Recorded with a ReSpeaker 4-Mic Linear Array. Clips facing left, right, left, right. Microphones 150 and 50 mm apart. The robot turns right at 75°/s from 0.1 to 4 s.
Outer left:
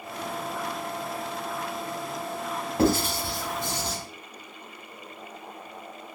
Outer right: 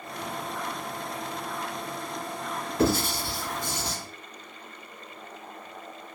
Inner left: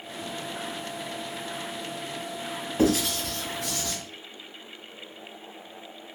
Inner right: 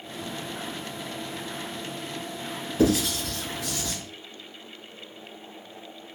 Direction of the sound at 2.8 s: 50° left (ahead or behind).